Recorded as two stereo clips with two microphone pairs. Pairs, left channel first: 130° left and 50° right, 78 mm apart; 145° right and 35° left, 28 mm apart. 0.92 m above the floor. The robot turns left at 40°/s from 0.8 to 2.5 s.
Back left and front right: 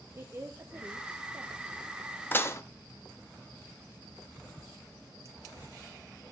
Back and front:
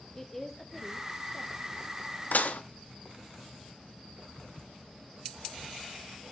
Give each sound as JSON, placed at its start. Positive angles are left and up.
{"t": 0.1, "sound": "a woman speaking", "azimuth_deg": -80, "distance_m": 0.6}
{"t": 2.3, "sound": "dishes clattering", "azimuth_deg": -165, "distance_m": 0.6}